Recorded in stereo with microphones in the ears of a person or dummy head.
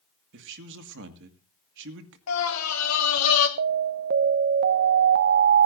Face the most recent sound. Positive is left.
turn(degrees=-55)  # may be behind; listen again after turning